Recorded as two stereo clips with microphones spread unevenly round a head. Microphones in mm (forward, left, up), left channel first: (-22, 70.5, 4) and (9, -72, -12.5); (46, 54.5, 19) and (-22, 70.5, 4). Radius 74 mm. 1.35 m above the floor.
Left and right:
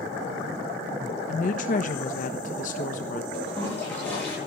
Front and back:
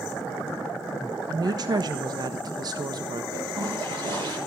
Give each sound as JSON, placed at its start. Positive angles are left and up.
{"t": 1.3, "sound": "a woman speaking", "azimuth_deg": 140, "distance_m": 1.2}
{"t": 3.3, "sound": "a toilet flushing", "azimuth_deg": 180, "distance_m": 9.0}